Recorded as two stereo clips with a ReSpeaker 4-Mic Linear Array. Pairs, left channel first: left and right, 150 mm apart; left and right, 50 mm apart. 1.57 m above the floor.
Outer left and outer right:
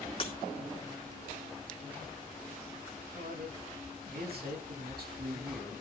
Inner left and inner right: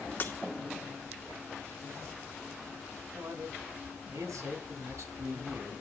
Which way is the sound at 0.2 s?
40° left (ahead or behind).